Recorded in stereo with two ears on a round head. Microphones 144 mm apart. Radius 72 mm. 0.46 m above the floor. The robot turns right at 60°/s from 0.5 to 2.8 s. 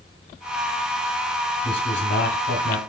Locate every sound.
1.6 s a man speaking: 35° left, 2.5 m; by 2.8 s 105° left, 2.5 m